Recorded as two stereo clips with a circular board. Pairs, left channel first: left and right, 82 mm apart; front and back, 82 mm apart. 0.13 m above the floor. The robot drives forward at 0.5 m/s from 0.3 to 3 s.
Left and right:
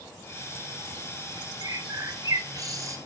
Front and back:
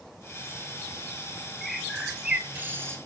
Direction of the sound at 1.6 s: 85° right.